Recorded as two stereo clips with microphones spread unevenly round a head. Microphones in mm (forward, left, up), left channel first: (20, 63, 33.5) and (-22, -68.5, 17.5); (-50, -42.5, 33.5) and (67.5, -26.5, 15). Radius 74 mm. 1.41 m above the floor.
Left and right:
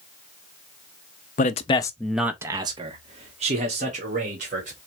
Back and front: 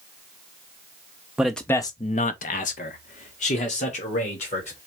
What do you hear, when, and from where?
1.4 s a man speaking: 100° left, 0.6 m; by 4.8 s 145° right, 1.8 m